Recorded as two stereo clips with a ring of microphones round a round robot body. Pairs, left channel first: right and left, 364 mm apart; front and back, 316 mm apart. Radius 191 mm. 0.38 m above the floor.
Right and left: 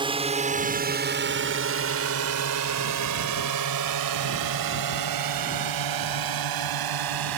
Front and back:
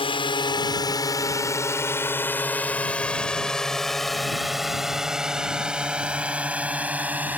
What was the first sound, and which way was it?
A drone, 40° left.